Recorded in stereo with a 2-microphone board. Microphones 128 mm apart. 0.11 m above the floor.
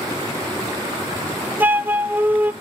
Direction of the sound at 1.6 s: 15° right (ahead or behind).